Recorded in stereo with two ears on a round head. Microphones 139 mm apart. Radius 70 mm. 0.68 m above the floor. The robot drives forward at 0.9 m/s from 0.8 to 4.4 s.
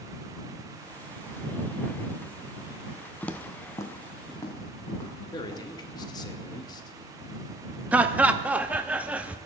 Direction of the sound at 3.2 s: 5° left (ahead or behind).